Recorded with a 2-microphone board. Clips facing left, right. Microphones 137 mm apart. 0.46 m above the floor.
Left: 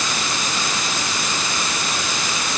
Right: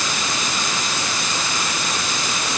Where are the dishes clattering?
No dishes clattering in this recording.